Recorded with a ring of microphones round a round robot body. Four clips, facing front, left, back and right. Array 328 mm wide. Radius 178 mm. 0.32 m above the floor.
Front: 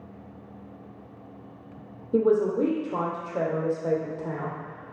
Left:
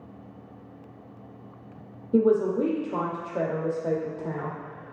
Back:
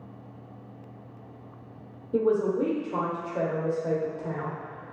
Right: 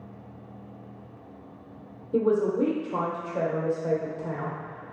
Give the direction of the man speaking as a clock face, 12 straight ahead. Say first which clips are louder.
Left 2 dB, front 2 dB; 11 o'clock.